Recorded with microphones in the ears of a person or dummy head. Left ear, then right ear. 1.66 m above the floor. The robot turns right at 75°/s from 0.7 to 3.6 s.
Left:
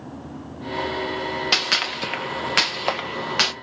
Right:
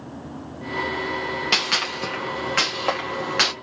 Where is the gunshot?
10° left (ahead or behind), 0.6 m.